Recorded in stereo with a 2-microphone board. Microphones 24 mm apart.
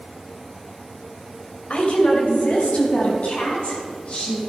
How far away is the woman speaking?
About 2.5 m.